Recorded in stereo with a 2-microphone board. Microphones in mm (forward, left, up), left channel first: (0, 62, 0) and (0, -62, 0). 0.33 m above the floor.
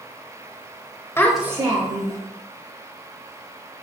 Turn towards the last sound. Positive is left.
turn(degrees=-60)  # may be behind; listen again after turning